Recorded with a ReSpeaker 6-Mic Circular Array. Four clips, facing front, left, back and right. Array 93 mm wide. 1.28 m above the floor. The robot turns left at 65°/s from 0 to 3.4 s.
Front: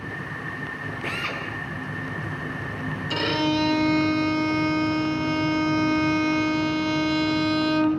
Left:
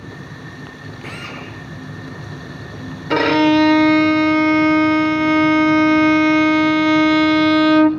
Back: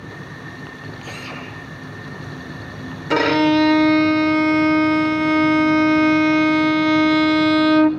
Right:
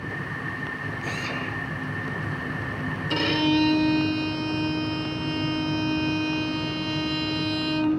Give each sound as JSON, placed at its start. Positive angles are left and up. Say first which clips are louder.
{"t": 1.0, "sound": "a drill", "louder": "left 1 dB, front 3 dB", "azimuth_deg": 35, "distance_m": 7.5}
{"t": 3.1, "sound": "a violin", "louder": "left 10 dB, back 9 dB", "azimuth_deg": 135, "distance_m": 0.8}